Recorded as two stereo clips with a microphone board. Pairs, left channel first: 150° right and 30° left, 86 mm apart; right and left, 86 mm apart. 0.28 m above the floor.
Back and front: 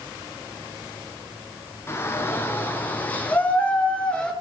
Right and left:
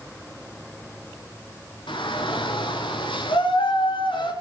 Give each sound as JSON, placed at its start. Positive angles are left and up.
{"t": 1.9, "sound": "a shout", "azimuth_deg": -90, "distance_m": 4.0}